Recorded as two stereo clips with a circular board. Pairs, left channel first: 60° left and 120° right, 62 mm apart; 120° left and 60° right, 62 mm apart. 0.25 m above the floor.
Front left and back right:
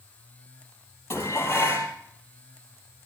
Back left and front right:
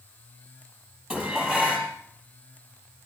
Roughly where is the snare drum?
No snare drum in this recording.